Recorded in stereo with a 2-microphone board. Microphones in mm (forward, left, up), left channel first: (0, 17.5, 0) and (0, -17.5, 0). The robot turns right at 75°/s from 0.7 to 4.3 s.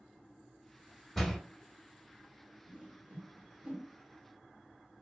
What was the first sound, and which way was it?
A door slam, 10° left (ahead or behind).